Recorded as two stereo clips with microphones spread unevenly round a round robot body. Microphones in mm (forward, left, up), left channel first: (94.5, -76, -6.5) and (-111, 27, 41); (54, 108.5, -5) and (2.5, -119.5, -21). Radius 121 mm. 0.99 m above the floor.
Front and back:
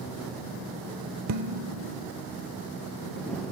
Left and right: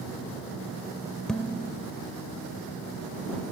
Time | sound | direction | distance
1.3 | dishes clattering | 165° left | ?